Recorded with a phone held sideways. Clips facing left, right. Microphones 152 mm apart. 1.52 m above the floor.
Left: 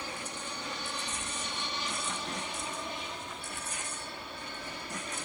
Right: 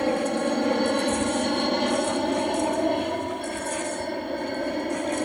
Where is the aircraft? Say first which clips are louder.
Right 19 dB; 65° right (ahead or behind); by 5.3 s 60° right (ahead or behind).